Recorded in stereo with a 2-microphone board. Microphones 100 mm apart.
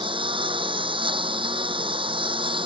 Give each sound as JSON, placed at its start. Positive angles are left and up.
{"t": 0.0, "sound": "a lawn mower", "side_deg": -65}